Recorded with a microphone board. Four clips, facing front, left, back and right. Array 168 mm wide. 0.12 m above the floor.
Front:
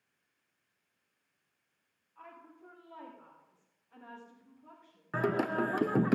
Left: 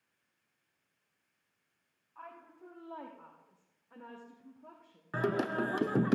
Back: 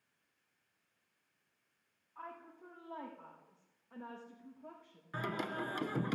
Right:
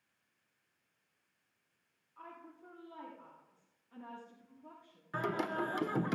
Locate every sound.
2.1 s a woman speaking: 125° left, 6.5 m; by 6.1 s 120° left, 4 m
5.1 s singing: 30° left, 0.5 m